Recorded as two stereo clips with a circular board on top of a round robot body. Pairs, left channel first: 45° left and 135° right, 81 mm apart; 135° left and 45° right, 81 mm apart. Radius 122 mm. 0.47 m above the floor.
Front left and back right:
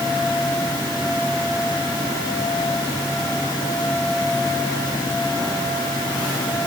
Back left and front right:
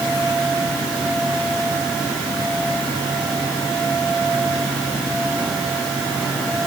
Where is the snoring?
No snoring in this recording.